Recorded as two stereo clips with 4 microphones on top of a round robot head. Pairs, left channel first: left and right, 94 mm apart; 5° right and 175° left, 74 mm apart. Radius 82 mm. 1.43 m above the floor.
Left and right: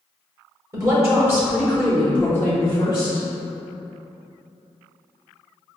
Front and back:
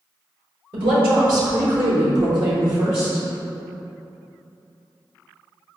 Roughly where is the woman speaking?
Behind right.